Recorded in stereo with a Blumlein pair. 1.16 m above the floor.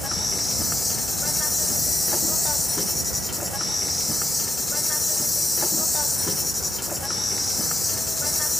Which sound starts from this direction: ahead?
An insect, at 0.0 s.